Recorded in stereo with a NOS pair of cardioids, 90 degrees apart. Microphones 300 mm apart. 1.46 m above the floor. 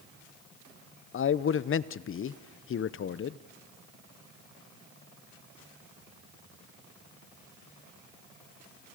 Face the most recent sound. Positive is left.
turn(degrees=45)